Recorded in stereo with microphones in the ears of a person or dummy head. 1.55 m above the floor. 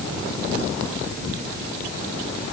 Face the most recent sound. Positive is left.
No sound to turn to.